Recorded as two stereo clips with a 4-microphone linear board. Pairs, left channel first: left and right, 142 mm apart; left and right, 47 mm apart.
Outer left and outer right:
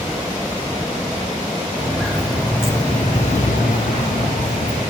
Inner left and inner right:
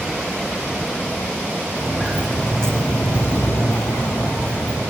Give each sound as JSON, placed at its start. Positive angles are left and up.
{"t": 1.8, "sound": "footsteps", "side_deg": -5, "distance_m": 2.5}